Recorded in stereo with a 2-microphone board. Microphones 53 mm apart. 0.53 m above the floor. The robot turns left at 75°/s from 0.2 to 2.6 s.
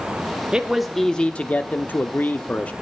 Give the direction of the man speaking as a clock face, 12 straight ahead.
5 o'clock.